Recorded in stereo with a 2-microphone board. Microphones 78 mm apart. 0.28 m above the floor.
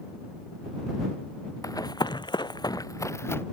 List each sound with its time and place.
1.6 s running footsteps: 50° left (ahead or behind); by 3.4 s 30° left (ahead or behind)